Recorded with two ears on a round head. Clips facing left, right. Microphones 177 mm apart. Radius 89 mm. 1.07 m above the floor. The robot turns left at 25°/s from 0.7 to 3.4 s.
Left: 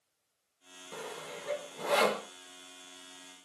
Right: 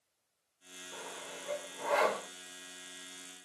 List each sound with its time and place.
0.9 s sawing: 60° left (ahead or behind), 1.3 m; by 2.3 s 40° left (ahead or behind), 1.3 m